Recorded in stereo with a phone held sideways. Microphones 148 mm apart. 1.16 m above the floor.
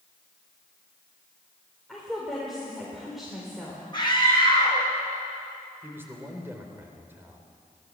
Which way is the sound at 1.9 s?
Centre (ahead or behind).